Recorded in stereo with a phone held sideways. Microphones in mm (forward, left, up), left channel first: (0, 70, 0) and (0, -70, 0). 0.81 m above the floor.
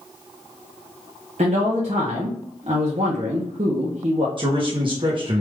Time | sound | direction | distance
1.4 | a man speaking | 55° right (ahead or behind) | 0.8 m
4.4 | a man speaking | 40° right (ahead or behind) | 0.9 m